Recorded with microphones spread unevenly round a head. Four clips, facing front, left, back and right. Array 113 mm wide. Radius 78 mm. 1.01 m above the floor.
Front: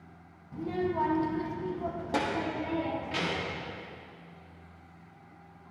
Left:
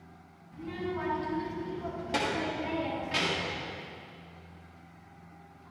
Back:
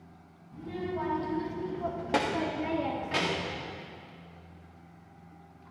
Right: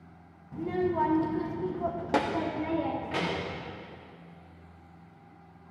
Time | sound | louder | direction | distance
0.5 | a child speaking | right 7 dB, front 4 dB | 65° right | 1.1 m